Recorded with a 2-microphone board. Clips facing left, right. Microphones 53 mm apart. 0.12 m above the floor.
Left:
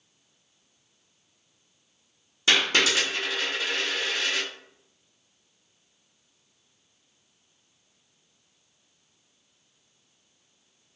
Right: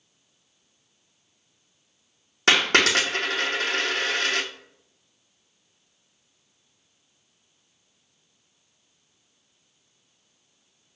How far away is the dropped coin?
About 1.2 m.